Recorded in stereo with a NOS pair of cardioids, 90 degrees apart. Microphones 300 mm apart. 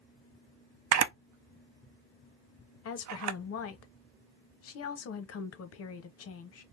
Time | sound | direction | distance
0.9 | a camera shutter | 65° right | 0.5 m
2.9 | a woman speaking | 55° left | 0.7 m